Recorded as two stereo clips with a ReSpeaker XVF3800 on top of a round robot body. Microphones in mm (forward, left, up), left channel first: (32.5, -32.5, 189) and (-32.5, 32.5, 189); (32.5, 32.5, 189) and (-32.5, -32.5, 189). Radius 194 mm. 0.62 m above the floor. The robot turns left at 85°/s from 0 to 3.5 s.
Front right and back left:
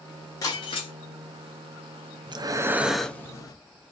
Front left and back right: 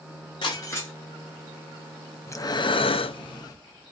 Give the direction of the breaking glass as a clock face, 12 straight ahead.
12 o'clock.